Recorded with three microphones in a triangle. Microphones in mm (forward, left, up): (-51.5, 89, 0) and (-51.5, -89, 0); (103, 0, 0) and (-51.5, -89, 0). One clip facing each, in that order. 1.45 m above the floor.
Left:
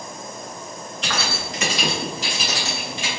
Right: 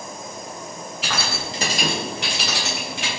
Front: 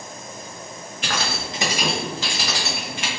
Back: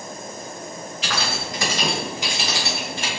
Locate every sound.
1.0 s keys jangling: 5° right, 1.4 m; by 3.1 s 105° right, 2 m